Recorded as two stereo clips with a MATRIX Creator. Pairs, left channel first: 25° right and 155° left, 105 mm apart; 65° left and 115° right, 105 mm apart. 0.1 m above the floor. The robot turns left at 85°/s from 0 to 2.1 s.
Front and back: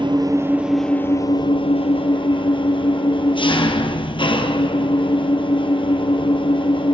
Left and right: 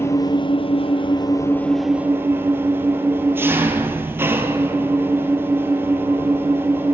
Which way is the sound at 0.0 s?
130° left.